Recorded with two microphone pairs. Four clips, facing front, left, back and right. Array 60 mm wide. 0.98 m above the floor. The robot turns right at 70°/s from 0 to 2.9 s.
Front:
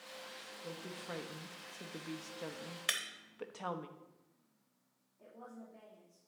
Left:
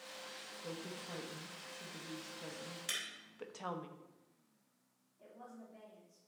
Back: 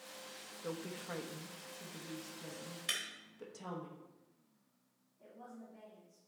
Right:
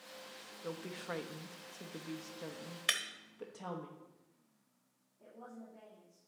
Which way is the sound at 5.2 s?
60° left.